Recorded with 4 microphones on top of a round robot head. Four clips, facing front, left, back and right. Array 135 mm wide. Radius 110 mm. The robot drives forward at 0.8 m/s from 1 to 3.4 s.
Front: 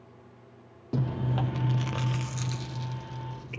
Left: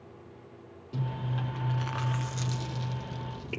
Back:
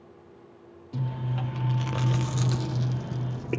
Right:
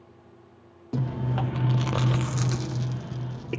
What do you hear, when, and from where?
0.9 s chewing: 40° right, 0.9 m; by 3.6 s 155° right, 1.4 m